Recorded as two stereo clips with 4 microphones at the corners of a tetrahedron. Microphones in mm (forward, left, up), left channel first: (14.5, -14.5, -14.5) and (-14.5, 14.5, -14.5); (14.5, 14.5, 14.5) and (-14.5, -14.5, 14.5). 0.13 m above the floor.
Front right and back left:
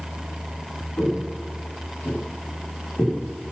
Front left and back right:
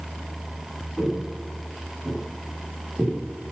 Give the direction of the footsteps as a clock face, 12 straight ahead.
2 o'clock.